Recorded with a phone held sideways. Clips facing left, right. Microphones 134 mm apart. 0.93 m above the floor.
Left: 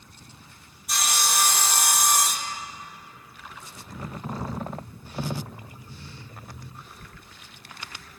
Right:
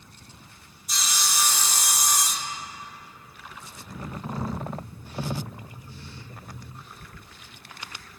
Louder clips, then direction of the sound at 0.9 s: Left 4 dB; 60° left (ahead or behind).